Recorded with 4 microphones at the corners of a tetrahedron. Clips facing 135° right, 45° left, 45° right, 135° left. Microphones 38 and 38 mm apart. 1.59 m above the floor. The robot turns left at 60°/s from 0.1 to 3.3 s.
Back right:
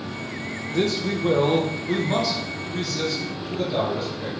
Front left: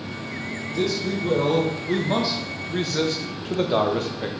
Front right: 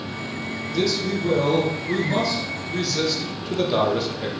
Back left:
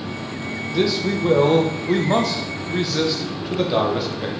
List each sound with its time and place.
0.7 s a man speaking: 150° right, 0.8 m; by 4.3 s 55° left, 0.8 m